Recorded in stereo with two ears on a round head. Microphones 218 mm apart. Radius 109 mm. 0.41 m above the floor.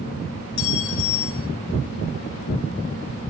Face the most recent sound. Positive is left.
turn(degrees=50)  # may be behind; listen again after turning